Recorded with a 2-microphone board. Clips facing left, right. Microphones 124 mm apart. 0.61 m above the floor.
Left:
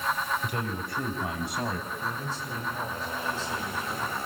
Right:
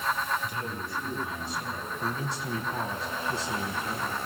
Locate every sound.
0.4 s a man speaking: 60° left (ahead or behind), 5.5 m; by 1.9 s 70° left (ahead or behind), 5 m
2.0 s a man speaking: 80° right, 5 m